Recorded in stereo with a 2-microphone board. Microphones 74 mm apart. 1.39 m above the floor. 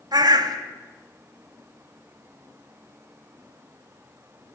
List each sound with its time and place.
0.1 s a bird: 65° right (ahead or behind), 0.7 m